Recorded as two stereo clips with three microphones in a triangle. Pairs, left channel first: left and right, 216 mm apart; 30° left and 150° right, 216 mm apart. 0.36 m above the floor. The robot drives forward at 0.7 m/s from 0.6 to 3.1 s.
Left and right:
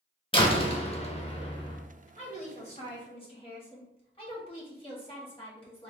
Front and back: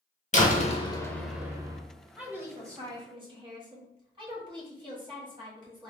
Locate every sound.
0.3 s a door slam: 45° left, 0.7 m; by 1.8 s 150° left, 0.8 m
2.2 s a woman speaking: 130° left, 1.3 m; by 5.9 s 150° left, 1.7 m